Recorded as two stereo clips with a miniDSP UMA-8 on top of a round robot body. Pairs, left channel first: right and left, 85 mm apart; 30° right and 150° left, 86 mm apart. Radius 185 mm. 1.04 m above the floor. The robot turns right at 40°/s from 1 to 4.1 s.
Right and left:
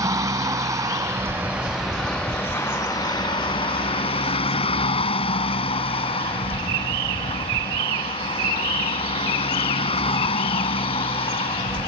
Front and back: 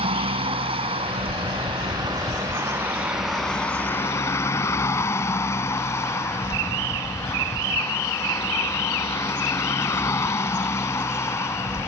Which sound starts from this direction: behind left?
A vehicle, at 0.0 s.